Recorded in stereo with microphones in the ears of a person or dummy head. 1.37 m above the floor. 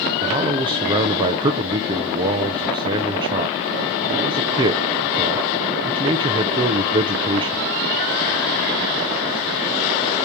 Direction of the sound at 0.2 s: 25° right (ahead or behind).